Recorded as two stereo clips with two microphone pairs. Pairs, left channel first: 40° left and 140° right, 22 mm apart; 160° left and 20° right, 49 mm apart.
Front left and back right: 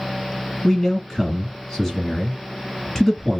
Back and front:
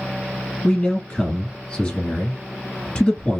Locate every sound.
0.6 s a man speaking: 95° left, 1.6 m